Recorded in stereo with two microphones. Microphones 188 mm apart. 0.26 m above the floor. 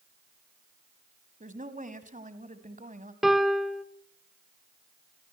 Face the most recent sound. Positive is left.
turn(degrees=0)  # may be behind; listen again after turning